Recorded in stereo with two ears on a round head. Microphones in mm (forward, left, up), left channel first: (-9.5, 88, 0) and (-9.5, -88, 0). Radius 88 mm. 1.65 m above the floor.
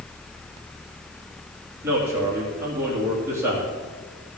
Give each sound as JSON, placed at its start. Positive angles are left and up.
{"t": 1.8, "sound": "a man speaking", "side_deg": -15, "distance_m": 3.0}